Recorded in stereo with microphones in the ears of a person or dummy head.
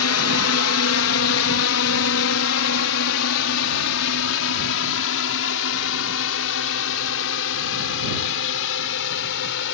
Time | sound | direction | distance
0.0 | a drone | 70° left (ahead or behind) | ?